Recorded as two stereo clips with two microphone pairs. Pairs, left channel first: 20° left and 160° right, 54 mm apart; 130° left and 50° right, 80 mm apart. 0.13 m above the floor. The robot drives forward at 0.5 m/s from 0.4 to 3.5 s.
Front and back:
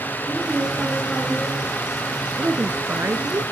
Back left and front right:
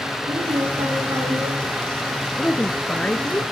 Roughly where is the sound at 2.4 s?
Behind.